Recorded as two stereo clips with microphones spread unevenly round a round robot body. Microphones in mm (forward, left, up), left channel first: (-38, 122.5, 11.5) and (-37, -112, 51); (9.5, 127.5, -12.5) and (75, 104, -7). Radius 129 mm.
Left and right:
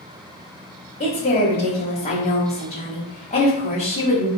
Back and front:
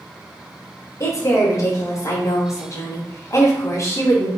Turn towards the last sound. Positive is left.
turn(degrees=140)